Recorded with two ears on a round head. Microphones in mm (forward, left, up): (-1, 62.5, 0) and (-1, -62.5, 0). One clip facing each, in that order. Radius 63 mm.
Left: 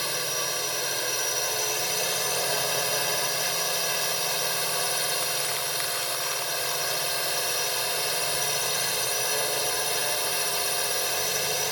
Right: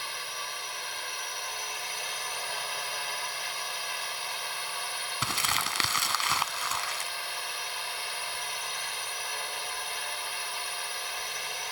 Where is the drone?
60° left (ahead or behind).